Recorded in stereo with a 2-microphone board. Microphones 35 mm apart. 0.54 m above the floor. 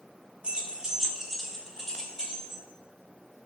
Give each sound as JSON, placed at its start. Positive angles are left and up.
{"t": 0.4, "sound": "keys jangling", "side_deg": -35, "distance_m": 0.9}